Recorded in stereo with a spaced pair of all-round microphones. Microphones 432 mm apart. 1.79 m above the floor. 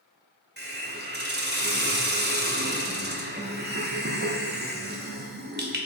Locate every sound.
0.6 s a hiss: 25° right (ahead or behind), 0.6 m